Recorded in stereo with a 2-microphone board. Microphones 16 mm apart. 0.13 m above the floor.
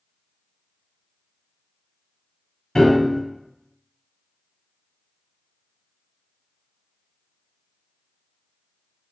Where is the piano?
55° left (ahead or behind), 1.3 m.